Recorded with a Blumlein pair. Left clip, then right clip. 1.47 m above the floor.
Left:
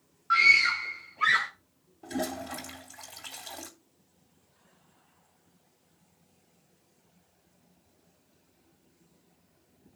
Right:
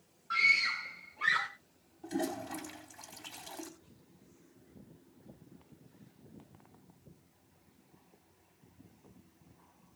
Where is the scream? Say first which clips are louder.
Left 7 dB; 35° left, 1.2 m; by 1.5 s 65° left, 2.5 m.